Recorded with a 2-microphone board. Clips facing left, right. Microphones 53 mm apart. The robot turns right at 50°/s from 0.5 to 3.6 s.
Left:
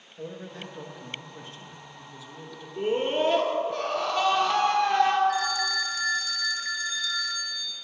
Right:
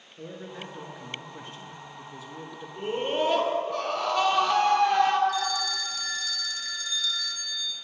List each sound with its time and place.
0.2 s a man speaking: 160° right, 1.2 m; by 2.7 s 55° right, 1.2 m
2.8 s a scream: 115° left, 1.5 m; by 5.2 s 155° left, 1.5 m
5.3 s a phone ringing: 30° left (ahead or behind), 0.8 m